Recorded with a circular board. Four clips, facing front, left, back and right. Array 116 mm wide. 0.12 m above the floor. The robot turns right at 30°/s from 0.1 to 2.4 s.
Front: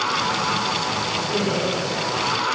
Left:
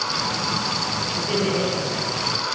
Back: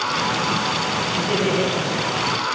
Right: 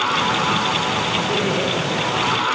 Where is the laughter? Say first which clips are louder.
Right 2 dB, back 4 dB; 150° left, 3.5 m; by 1.7 s 165° left, 3.5 m.